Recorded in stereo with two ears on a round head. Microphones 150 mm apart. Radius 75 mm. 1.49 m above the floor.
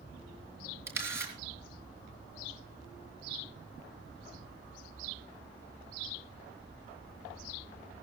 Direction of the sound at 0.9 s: 15° right (ahead or behind).